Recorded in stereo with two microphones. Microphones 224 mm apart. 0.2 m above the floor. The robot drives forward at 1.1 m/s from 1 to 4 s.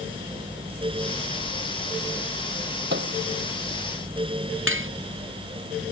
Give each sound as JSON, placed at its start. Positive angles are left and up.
{"t": 2.9, "sound": "a microwave", "side_deg": -50}
{"t": 4.7, "sound": "cutlery clinking", "side_deg": -65}